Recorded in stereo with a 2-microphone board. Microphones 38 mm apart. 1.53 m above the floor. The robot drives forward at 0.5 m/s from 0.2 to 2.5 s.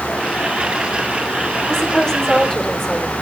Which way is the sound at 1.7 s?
10° left (ahead or behind).